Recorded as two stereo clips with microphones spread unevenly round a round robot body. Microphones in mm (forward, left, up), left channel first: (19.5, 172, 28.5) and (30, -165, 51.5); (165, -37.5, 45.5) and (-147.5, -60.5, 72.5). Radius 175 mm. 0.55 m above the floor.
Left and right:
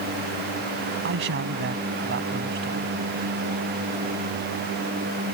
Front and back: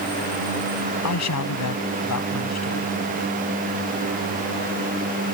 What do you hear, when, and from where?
1.0 s a man speaking: 30° right